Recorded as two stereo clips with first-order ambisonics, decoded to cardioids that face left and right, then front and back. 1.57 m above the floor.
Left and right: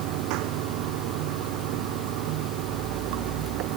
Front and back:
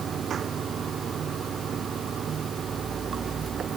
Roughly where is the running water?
Behind right.